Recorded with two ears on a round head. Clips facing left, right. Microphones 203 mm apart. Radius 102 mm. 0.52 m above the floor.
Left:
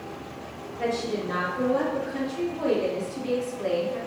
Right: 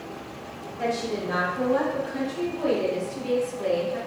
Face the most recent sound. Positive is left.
turn(degrees=-20)  # may be behind; listen again after turning